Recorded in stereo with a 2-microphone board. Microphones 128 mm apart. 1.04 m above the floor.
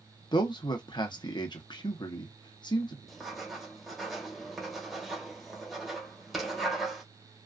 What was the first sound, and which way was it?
A man speaking, 35° left (ahead or behind).